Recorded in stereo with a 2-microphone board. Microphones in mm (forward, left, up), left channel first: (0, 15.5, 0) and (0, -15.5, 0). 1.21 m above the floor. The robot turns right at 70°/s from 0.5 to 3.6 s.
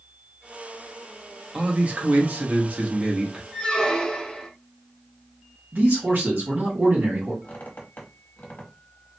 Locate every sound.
1.5 s a man speaking: 145° right, 0.9 m; by 3.4 s 15° right, 0.9 m
3.5 s a squeak: 25° left (ahead or behind), 1.2 m
5.7 s a man speaking: 85° right, 1.7 m
7.4 s a squeak: 60° left (ahead or behind), 0.9 m